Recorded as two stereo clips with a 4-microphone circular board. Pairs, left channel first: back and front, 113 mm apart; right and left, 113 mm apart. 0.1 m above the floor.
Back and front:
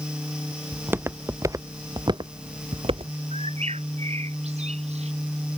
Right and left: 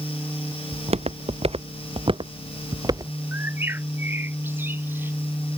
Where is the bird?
20° left.